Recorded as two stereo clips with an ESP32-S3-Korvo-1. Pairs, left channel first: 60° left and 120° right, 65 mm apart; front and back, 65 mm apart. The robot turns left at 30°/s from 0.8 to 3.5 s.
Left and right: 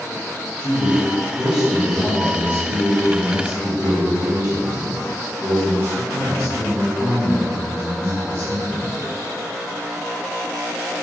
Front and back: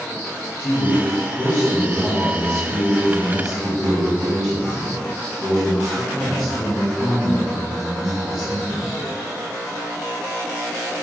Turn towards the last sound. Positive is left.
turn(degrees=-95)